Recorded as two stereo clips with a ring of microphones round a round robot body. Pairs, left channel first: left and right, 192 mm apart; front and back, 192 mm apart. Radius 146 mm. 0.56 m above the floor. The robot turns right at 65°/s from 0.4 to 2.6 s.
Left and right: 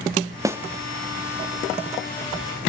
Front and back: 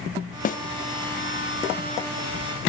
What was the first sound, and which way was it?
A snare drum, 20° right.